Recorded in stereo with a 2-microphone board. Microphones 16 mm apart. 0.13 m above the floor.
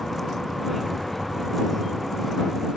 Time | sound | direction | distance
0.0 | a vehicle | 10° left (ahead or behind) | ?